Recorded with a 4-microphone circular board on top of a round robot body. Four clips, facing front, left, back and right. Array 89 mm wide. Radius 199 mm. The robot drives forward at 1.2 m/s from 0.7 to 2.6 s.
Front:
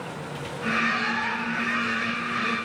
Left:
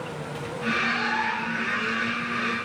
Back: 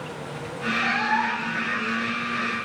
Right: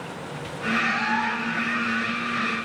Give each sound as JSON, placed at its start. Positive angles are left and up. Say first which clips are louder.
{"t": 0.8, "sound": "a cat meowing", "louder": "right 2 dB, back 6 dB", "azimuth_deg": -165, "distance_m": 8.5}